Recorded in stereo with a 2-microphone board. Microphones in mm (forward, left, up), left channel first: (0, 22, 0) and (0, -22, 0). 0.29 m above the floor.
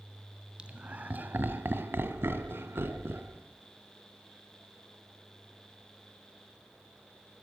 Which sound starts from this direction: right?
Laughter, at 0.6 s.